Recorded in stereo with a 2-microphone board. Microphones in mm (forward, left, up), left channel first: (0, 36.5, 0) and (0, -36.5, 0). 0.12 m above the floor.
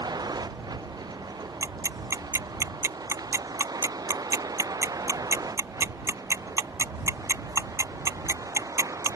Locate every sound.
0.0 s a vehicle: 65° right (ahead or behind); by 9.2 s 50° right (ahead or behind)
1.6 s ticking: 45° right (ahead or behind)